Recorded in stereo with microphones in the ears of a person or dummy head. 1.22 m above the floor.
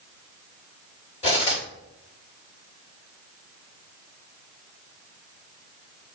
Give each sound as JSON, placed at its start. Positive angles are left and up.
{"t": 1.2, "sound": "cutlery clinking", "side_deg": 35, "distance_m": 1.9}